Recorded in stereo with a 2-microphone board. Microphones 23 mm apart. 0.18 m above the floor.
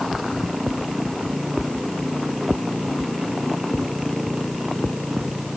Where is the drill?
I don't hear a drill.